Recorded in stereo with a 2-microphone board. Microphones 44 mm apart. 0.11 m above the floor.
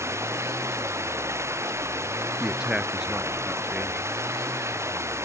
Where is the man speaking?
15° right (ahead or behind).